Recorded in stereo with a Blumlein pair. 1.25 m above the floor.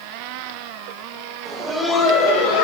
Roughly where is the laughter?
Ahead right.